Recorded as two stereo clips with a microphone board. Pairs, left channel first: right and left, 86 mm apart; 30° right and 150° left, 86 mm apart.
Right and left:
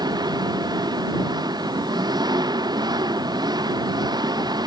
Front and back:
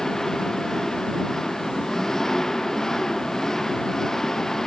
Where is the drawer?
No drawer in this recording.